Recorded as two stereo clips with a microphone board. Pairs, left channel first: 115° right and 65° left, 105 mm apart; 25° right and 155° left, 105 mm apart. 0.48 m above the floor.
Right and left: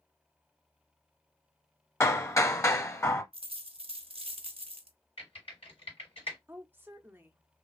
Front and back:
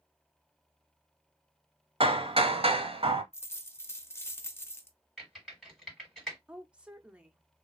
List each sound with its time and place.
2.0 s hammering: 175° right, 0.9 m
3.3 s a dropped coin: 45° left, 0.6 m
5.2 s typing on a keyboard: 115° right, 3 m
6.5 s a woman speaking: 100° left, 0.7 m